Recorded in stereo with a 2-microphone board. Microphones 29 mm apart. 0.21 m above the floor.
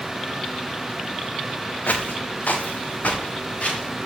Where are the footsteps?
85° left, 1.8 m; by 4.0 s 50° left (ahead or behind), 3.5 m.